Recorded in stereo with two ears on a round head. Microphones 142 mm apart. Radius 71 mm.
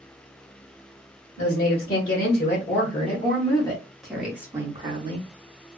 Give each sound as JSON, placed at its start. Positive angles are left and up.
{"t": 1.4, "sound": "a woman speaking", "side_deg": 60, "distance_m": 1.8}